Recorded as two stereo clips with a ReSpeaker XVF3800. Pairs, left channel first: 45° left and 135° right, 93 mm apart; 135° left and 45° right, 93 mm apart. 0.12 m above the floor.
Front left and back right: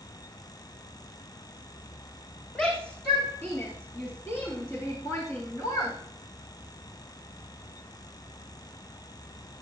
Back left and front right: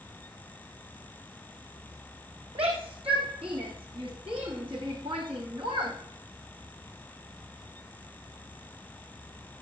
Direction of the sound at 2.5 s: 35° right.